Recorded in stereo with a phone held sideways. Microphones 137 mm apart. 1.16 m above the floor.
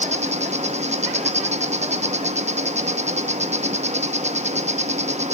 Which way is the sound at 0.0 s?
60° right (ahead or behind).